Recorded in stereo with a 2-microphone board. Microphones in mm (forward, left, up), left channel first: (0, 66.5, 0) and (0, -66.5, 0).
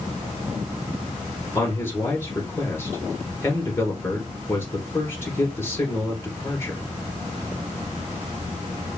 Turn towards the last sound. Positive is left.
turn(degrees=20)  # may be behind; listen again after turning